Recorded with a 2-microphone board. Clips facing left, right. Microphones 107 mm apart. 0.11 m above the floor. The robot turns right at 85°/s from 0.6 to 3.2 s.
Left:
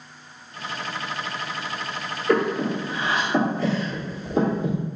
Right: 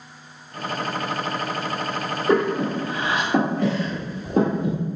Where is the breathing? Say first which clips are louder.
Right 1 dB; 25° right (ahead or behind), 1.7 m; by 4.8 s 50° right (ahead or behind), 1.7 m.